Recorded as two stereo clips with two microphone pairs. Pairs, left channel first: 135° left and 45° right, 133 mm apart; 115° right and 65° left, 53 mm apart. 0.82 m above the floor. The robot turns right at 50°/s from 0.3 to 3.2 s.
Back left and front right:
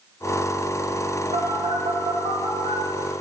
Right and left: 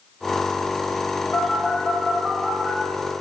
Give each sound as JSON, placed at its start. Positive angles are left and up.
{"t": 1.3, "sound": "a phone buzzing", "azimuth_deg": -60, "distance_m": 1.0}